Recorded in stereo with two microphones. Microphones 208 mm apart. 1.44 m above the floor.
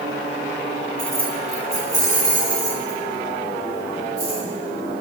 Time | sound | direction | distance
1.0 | keys jangling | 70° right (ahead or behind) | 1.5 m